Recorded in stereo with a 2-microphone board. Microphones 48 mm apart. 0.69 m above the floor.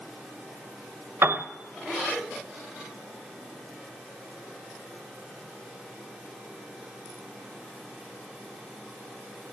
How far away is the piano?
About 0.9 m.